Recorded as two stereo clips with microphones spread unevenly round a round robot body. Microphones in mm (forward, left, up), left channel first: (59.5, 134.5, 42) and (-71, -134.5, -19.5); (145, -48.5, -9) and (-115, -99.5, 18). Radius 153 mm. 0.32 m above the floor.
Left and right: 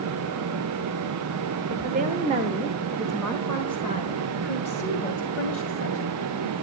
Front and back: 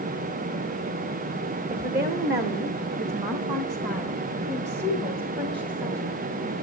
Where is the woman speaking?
125° right, 1.4 m; by 6.5 s 110° left, 2.5 m.